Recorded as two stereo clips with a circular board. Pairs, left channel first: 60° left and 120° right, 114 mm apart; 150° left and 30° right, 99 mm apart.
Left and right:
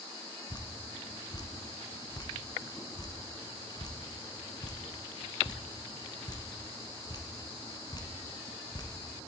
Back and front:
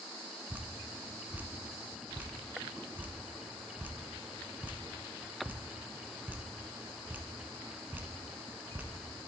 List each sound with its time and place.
0.5 s dripping: 35° left, 1.0 m